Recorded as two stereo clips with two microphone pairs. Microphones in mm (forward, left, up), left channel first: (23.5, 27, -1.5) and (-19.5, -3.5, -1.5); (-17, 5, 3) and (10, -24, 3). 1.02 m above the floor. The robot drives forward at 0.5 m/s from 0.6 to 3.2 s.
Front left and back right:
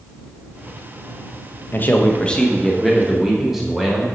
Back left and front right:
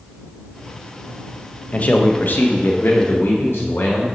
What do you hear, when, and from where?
1.7 s a man speaking: 85° left, 0.7 m; by 4.0 s 135° left, 1.0 m